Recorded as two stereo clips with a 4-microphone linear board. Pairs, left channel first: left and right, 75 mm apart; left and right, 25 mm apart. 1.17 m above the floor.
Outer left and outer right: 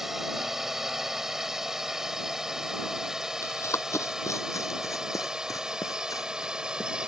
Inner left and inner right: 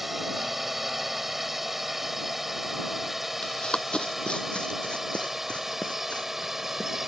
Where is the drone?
5° right (ahead or behind); by 7.1 s 10° right (ahead or behind).